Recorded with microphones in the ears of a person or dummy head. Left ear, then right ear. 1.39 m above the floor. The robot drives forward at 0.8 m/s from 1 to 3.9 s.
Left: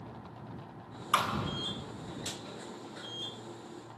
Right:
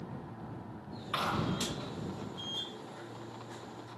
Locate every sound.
1.1 s a thud: 40° left (ahead or behind), 2.5 m